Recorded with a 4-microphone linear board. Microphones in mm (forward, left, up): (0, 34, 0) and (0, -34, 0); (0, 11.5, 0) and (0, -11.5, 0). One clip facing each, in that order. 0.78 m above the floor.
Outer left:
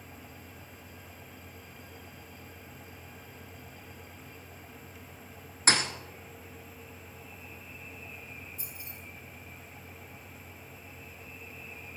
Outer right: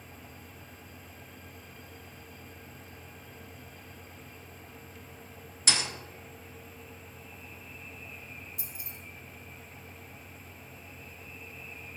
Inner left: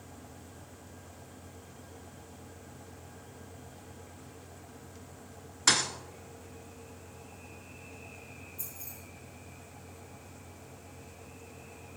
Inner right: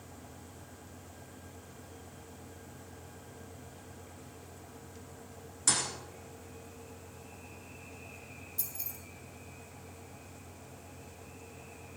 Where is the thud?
45° left (ahead or behind), 1.0 m.